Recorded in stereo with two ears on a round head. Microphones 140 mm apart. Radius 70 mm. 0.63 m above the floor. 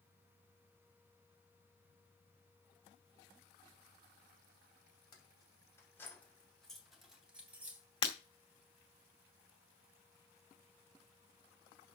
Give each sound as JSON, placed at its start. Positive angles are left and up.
{"t": 5.1, "sound": "keys jangling", "side_deg": 30, "distance_m": 2.5}
{"t": 8.0, "sound": "breaking glass", "side_deg": 35, "distance_m": 2.0}